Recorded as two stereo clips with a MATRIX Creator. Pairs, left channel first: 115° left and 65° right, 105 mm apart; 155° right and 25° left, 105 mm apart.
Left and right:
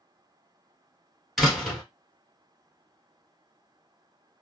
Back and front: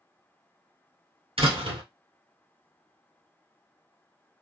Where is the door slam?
20° left, 1.8 m.